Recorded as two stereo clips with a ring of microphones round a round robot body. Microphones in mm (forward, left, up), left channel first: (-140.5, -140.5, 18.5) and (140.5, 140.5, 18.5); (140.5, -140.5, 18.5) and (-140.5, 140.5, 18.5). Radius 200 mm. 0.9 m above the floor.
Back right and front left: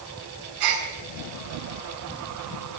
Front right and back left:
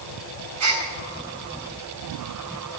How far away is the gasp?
About 3.5 m.